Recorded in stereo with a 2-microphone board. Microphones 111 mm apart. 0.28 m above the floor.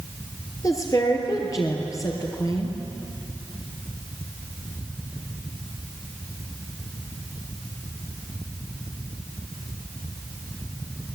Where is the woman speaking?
30° left (ahead or behind), 4.5 m.